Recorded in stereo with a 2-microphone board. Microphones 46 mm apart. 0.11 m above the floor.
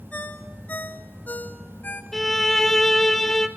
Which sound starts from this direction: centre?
A violin, at 2.1 s.